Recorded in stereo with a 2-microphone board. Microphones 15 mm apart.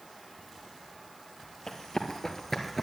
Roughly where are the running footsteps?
Left.